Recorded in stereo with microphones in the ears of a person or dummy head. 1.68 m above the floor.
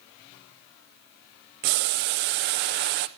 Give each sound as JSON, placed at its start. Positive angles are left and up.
{"t": 1.6, "sound": "boiling", "side_deg": -45, "distance_m": 0.9}